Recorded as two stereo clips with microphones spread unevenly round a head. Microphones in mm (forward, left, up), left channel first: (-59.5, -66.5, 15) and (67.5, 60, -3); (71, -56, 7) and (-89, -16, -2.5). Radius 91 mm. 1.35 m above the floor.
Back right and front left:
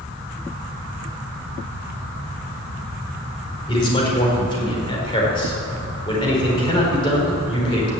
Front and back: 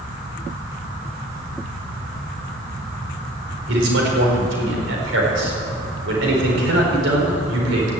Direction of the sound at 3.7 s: 160° left.